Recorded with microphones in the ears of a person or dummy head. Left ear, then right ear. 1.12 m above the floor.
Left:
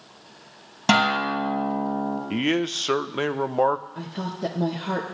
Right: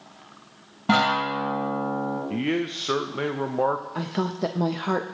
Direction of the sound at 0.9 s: 75° left (ahead or behind).